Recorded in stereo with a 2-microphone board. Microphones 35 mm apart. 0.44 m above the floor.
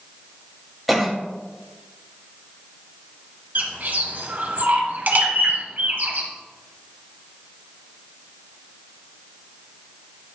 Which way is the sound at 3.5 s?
55° right (ahead or behind).